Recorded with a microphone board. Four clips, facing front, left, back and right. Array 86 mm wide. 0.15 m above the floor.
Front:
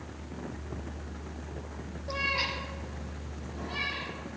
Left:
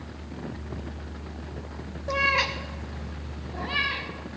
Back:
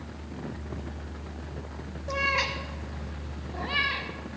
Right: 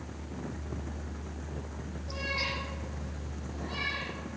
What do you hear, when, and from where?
2.1 s a cat meowing: 100° left, 1.1 m; by 4.1 s 145° left, 2.5 m